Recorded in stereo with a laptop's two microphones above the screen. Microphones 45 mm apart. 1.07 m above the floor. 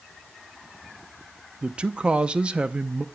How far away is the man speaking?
About 0.6 m.